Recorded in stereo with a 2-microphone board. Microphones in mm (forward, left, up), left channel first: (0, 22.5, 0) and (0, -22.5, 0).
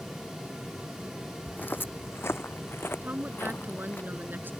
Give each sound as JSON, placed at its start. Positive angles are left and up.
{"t": 1.5, "sound": "footsteps", "side_deg": 35}
{"t": 3.0, "sound": "a woman speaking", "side_deg": -50}